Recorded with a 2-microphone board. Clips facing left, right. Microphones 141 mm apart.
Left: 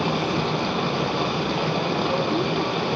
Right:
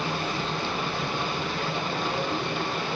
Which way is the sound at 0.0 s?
75° left (ahead or behind).